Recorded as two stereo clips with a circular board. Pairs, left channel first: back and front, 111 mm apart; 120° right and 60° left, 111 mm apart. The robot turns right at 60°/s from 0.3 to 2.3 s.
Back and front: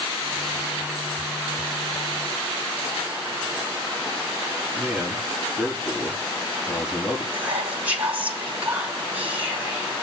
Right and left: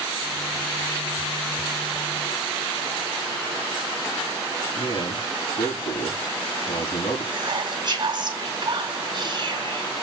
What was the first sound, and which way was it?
A man speaking, 85° right.